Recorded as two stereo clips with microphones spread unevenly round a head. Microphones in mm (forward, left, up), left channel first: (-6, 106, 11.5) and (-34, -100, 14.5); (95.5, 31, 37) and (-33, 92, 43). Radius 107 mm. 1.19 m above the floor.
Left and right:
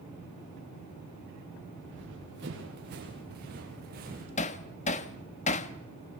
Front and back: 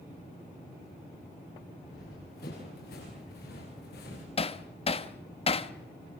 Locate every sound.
1.8 s running footsteps: 60° right, 8.5 m; by 4.3 s 45° right, 7 m
4.4 s hammering: 20° left, 1.2 m